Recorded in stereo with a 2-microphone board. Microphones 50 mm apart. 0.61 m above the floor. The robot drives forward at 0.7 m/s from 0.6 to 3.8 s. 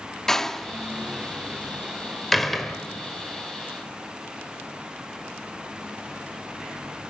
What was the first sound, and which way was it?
A door slam, 10° left (ahead or behind).